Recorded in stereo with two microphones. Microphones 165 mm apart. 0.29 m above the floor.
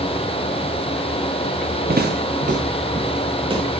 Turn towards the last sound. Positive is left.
turn(degrees=-30)  # may be behind; listen again after turning